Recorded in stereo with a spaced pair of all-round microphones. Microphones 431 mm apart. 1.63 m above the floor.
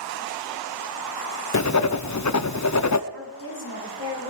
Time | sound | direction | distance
1.5 | writing | 40° left (ahead or behind) | 0.6 m
3.1 | a woman speaking | 30° right (ahead or behind) | 5.5 m